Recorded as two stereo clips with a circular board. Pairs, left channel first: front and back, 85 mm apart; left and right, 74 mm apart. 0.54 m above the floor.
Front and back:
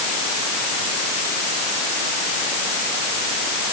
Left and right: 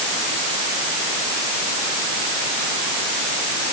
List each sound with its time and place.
Only background noise.